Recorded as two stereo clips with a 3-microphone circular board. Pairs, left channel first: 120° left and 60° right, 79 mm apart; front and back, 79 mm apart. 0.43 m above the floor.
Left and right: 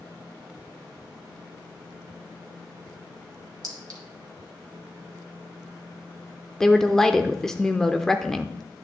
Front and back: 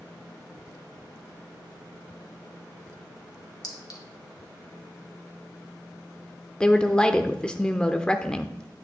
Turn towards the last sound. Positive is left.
turn(degrees=50)